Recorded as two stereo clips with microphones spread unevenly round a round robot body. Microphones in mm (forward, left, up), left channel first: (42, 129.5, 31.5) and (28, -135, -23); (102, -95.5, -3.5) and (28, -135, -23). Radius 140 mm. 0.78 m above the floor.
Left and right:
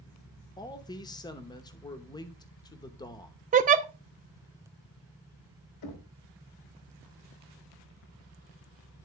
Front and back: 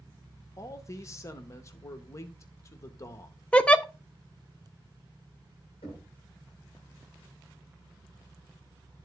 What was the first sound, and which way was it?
A man speaking, 5° left.